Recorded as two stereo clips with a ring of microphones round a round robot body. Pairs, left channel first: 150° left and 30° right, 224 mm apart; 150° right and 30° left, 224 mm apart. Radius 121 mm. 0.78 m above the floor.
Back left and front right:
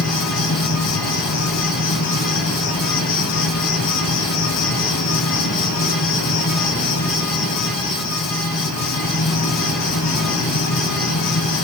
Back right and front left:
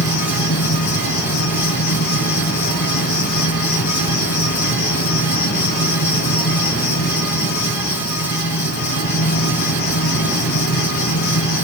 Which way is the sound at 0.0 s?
160° left.